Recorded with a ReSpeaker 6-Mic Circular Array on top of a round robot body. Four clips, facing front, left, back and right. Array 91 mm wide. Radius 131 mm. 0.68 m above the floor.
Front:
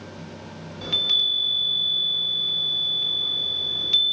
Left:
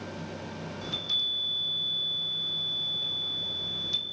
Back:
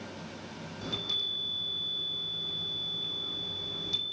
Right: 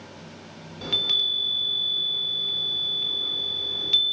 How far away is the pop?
No pop in this recording.